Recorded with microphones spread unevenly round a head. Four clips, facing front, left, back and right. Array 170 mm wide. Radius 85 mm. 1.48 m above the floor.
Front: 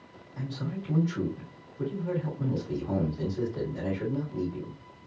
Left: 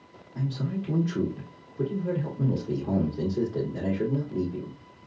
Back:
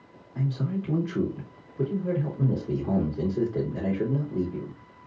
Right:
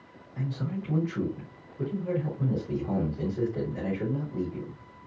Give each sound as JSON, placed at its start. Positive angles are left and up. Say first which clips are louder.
{"t": 0.3, "sound": "a man speaking", "louder": "left 2 dB, back 6 dB", "azimuth_deg": 140, "distance_m": 3.0}